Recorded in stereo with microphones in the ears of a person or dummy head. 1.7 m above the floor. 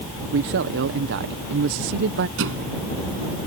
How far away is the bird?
No bird in this recording.